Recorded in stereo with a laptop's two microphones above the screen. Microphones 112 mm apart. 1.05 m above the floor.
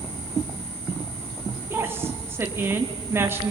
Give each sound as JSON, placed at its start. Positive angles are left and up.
{"t": 1.7, "sound": "a woman speaking", "side_deg": -20, "distance_m": 2.0}